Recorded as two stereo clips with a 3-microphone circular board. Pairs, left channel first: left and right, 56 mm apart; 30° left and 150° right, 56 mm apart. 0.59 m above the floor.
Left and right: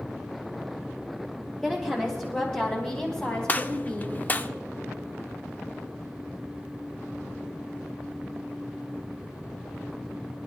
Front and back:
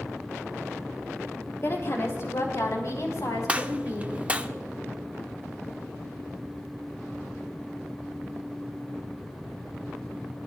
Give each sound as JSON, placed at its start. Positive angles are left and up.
{"t": 1.6, "sound": "a woman speaking", "azimuth_deg": 10, "distance_m": 1.9}
{"t": 3.5, "sound": "a gunshot", "azimuth_deg": 145, "distance_m": 0.5}